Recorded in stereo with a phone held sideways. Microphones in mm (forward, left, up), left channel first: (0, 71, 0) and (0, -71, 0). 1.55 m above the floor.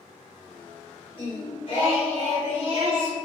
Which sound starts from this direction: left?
Singing, at 1.1 s.